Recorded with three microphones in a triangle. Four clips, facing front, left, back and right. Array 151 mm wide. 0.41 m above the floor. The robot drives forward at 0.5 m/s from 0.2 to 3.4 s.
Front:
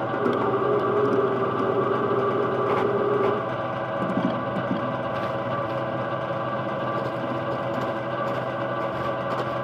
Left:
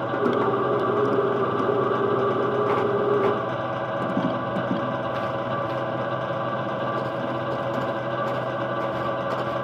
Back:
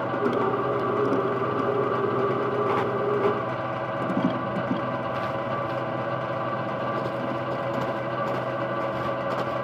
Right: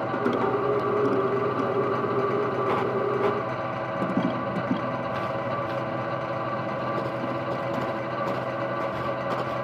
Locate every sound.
Only background noise.